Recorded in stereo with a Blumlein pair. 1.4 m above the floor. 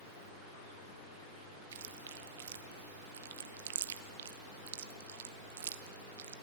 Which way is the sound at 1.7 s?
60° right.